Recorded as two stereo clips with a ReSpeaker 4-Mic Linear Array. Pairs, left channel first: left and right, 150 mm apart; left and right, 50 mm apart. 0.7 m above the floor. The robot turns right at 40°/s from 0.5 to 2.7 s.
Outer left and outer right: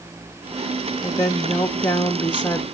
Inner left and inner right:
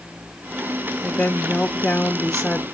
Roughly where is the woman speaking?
Left.